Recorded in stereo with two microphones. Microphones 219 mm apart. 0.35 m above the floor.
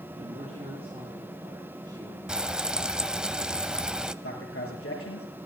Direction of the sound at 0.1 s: 30° right (ahead or behind).